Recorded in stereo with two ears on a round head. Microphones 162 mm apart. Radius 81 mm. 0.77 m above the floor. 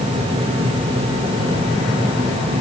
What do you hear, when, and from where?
Only background noise.